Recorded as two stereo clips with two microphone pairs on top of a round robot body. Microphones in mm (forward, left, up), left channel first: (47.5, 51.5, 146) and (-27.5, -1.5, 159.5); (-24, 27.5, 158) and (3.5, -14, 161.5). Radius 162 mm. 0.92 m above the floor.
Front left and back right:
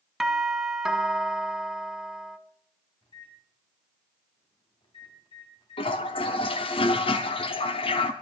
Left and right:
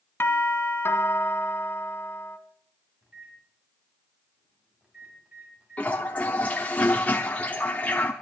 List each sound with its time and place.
0.2 s a doorbell: 125° left, 2 m
3.0 s a microwave: 15° left, 6 m
5.8 s a toilet flushing: 60° left, 0.8 m